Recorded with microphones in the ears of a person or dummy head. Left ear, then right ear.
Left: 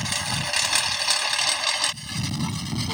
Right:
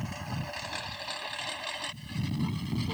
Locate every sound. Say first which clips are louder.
0.0 s a lawn mower: left 13 dB; 65° left (ahead or behind); by 3.0 s 40° left (ahead or behind)